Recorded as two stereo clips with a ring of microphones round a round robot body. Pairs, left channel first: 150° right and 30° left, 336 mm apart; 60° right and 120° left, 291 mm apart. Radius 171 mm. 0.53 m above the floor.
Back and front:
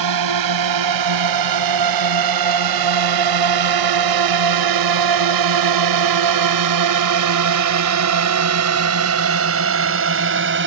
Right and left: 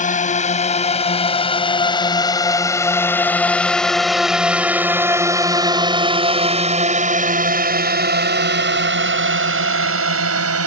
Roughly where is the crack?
No crack in this recording.